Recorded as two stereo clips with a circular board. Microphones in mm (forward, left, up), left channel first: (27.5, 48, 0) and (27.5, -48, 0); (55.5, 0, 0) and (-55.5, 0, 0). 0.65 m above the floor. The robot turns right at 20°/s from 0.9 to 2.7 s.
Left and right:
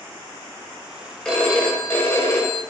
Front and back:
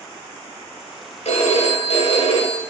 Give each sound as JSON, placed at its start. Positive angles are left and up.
{"t": 1.2, "sound": "a phone ringing", "azimuth_deg": 5, "distance_m": 1.6}